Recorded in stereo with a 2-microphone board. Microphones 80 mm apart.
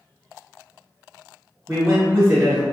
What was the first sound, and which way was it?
A man speaking, 15° right (ahead or behind).